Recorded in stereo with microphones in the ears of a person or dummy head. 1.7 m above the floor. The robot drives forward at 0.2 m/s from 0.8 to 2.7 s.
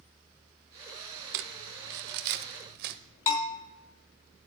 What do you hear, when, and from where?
1.3 s crumpling: 65° right (ahead or behind), 0.7 m; by 3.0 s 50° right (ahead or behind), 0.8 m
3.3 s a bell: 45° left (ahead or behind), 2 m